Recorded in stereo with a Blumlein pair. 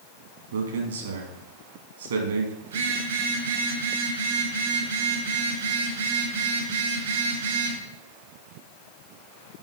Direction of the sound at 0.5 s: 70° right.